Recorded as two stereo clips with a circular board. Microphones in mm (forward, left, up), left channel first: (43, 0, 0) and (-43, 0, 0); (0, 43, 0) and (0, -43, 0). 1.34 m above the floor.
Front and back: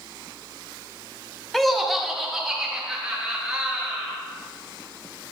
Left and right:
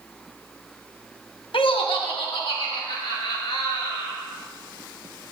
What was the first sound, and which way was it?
Laughter, 85° left.